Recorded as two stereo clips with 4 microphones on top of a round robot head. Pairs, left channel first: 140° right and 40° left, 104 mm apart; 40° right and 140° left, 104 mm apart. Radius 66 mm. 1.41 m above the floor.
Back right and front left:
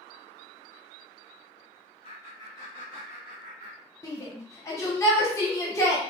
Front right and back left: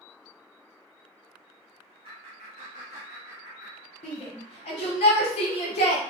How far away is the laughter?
About 1.0 m.